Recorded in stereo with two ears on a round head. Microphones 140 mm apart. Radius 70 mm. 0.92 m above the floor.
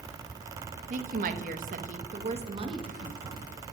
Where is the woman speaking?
50° right (ahead or behind), 1.1 m; by 3.5 s 20° right (ahead or behind), 1.7 m.